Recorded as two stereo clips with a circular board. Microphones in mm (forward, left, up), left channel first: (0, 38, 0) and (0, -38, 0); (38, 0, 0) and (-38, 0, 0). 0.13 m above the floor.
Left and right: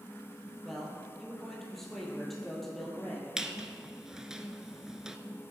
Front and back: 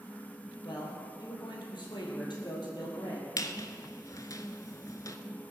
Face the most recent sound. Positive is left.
turn(degrees=-10)